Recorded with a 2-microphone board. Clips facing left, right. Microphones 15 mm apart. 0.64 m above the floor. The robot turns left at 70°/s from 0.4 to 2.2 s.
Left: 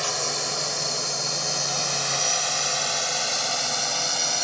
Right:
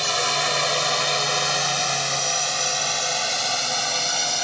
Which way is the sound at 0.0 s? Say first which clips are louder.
Right 5 dB; 55° right (ahead or behind).